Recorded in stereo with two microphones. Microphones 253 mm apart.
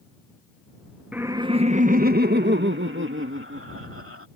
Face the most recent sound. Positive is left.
turn(degrees=-60)  # may be behind; listen again after turning